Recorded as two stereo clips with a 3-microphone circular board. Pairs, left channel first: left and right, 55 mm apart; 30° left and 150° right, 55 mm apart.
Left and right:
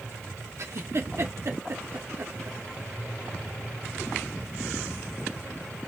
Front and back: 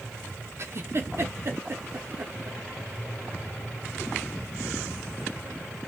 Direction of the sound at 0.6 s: 115° right.